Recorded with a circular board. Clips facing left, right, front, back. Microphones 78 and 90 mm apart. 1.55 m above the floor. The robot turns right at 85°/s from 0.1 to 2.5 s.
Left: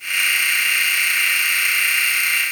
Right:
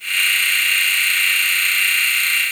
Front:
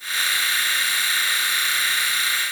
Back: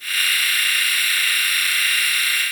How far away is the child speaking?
No child speaking in this recording.